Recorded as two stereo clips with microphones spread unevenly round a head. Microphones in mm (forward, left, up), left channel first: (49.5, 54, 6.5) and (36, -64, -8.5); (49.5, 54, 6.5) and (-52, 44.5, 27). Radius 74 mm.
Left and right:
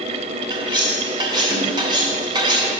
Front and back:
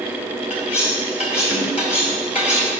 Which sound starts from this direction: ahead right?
Cutlery clinking, at 0.5 s.